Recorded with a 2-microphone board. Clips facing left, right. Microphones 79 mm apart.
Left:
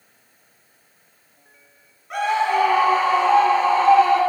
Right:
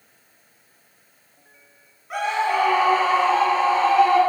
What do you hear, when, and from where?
2.1 s a scream: 5° right (ahead or behind), 1.9 m; by 4.2 s 30° left (ahead or behind), 4 m